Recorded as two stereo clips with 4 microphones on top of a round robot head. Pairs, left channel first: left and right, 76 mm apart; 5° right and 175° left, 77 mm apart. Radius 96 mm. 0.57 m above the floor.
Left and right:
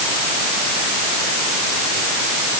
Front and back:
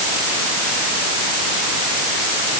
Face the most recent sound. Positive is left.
No sound to turn to.